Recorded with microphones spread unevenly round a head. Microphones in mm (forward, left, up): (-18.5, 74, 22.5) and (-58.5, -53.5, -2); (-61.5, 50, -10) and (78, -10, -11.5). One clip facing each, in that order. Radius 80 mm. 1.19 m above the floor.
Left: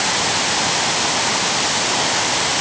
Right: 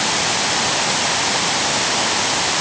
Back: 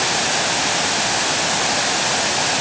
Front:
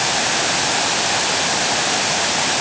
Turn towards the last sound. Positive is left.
No sound to turn to.